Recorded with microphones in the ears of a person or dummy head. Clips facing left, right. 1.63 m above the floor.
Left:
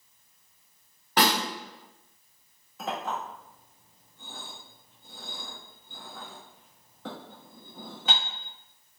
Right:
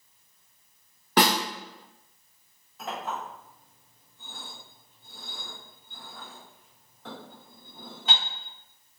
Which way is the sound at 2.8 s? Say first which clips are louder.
Left 2 dB; 60° left (ahead or behind).